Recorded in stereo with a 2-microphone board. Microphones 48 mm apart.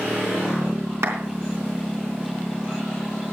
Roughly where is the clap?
Right.